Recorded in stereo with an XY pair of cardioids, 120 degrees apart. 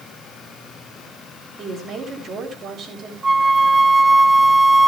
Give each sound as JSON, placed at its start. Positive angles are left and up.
{"t": 1.6, "sound": "a woman speaking", "azimuth_deg": -55, "distance_m": 7.0}
{"t": 3.2, "sound": "a flute", "azimuth_deg": -25, "distance_m": 0.7}